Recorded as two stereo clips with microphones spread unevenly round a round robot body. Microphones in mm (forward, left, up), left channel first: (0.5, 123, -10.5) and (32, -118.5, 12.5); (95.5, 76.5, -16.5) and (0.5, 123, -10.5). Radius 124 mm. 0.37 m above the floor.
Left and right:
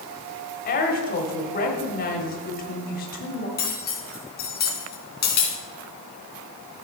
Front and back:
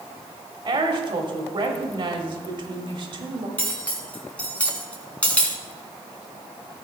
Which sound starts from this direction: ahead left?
Cutlery clinking, at 3.6 s.